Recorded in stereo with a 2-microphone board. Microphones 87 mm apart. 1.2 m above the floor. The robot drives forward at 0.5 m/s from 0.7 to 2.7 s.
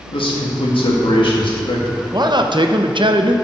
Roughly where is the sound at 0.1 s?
Left.